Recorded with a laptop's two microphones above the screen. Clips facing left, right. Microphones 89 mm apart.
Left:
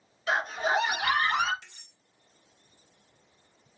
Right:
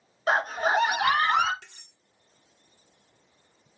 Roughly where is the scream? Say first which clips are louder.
Right 3 dB; right.